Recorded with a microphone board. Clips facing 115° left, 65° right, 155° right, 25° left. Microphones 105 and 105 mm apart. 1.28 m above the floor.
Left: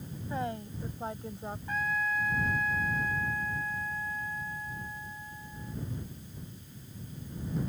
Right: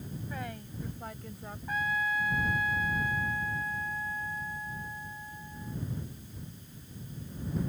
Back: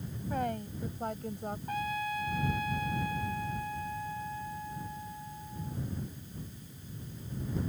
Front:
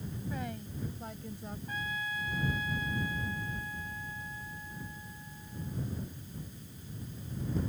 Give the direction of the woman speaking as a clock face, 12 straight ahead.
6 o'clock.